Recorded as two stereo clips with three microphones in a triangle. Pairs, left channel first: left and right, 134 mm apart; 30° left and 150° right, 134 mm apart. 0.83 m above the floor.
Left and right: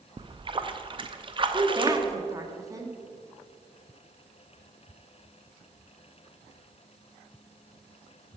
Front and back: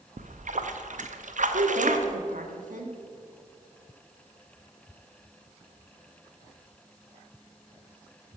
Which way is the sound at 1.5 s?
155° right.